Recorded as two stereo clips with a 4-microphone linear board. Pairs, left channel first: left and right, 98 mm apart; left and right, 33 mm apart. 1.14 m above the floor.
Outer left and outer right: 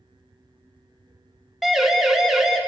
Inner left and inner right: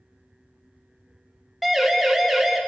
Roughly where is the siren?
Centre.